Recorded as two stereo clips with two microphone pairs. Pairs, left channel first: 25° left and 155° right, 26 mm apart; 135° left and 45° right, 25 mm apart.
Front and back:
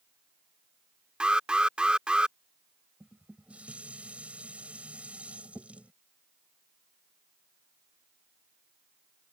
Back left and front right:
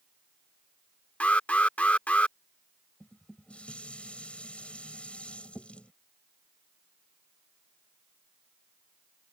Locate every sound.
1.2 s an alarm: 155° left
3.0 s dishes clattering: 170° left